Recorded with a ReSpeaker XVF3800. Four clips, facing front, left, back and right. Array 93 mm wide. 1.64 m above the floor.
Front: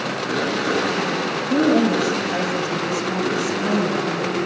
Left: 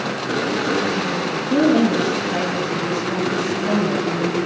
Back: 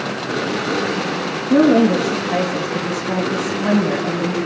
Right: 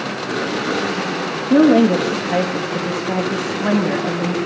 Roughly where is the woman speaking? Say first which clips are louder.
Right 4 dB, back 5 dB; behind right.